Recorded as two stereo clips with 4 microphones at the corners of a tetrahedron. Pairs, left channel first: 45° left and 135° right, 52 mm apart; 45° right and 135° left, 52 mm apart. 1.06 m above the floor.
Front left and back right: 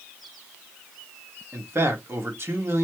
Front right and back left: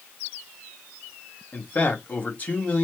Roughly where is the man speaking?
Right.